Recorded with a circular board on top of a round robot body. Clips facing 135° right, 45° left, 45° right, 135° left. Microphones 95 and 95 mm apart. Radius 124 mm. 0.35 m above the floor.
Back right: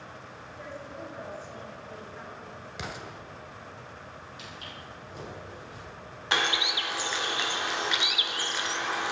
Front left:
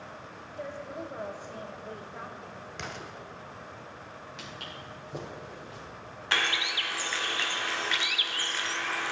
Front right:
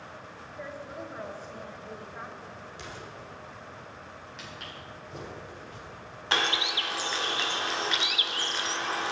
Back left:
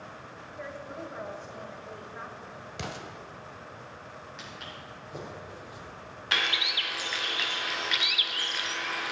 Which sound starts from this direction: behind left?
An explosion, at 2.8 s.